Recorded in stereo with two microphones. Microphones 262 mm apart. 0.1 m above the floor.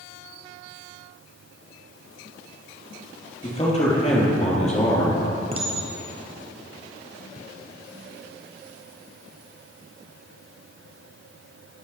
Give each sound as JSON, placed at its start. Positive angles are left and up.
{"t": 3.4, "sound": "a man speaking", "side_deg": 25, "distance_m": 3.0}
{"t": 5.5, "sound": "a clink", "side_deg": -20, "distance_m": 1.4}